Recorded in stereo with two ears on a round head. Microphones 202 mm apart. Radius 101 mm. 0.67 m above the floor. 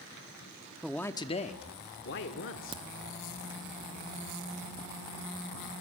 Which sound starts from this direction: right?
A crack, at 2.7 s.